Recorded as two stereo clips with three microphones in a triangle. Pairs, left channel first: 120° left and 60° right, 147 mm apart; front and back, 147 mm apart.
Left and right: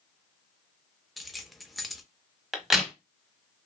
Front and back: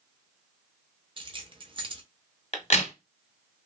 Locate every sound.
1.2 s keys jangling: 150° right, 0.5 m
2.5 s a crack: 25° left, 0.7 m